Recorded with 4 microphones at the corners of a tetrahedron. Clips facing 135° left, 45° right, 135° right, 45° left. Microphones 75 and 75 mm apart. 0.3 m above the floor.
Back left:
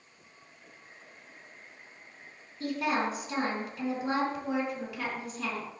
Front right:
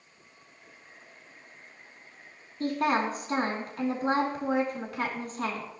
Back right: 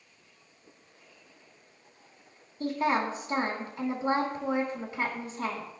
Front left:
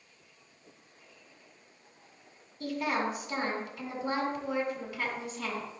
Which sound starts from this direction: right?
A woman speaking, at 2.6 s.